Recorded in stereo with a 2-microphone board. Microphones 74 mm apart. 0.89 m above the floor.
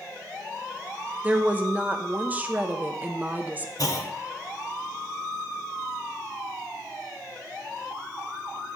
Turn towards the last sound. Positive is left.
turn(degrees=55)  # may be behind; listen again after turning